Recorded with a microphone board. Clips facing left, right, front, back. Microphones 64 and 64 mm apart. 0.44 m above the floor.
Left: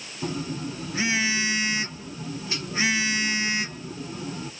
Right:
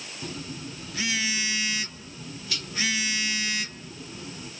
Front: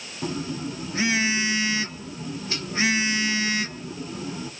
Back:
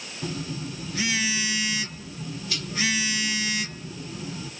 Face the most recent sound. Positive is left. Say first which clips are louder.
# left 8 dB, front 4 dB
turn(degrees=40)